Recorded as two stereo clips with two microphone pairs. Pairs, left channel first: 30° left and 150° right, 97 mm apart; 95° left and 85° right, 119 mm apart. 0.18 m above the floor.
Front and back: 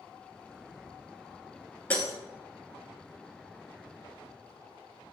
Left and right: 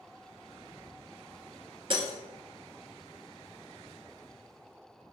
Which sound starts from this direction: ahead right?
Breaking glass, at 1.9 s.